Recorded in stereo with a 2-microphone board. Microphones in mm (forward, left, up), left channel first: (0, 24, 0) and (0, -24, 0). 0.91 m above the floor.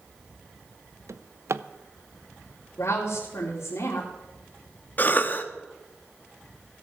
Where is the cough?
40° left (ahead or behind), 1.3 m.